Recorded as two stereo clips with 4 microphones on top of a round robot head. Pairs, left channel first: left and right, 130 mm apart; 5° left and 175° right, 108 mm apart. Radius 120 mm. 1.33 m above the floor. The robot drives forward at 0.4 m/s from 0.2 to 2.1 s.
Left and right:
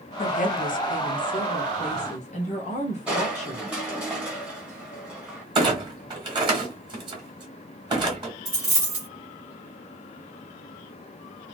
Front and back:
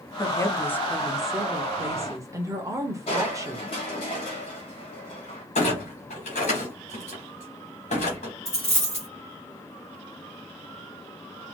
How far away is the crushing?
About 0.6 m.